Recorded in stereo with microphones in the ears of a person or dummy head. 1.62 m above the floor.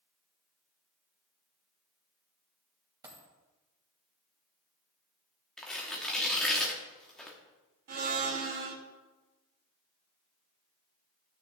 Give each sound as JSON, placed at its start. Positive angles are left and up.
{"t": 3.0, "sound": "a dropped coin", "side_deg": -20, "distance_m": 1.7}
{"t": 5.6, "sound": "tearing paper", "side_deg": 5, "distance_m": 1.0}
{"t": 7.9, "sound": "a blender", "side_deg": -45, "distance_m": 1.0}